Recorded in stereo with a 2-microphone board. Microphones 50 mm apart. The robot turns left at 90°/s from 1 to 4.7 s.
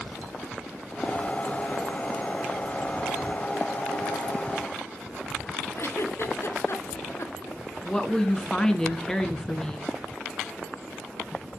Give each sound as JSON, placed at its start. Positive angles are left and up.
{"t": 5.8, "sound": "a giggle", "side_deg": 60, "distance_m": 2.0}
{"t": 7.8, "sound": "a woman speaking", "side_deg": 15, "distance_m": 2.0}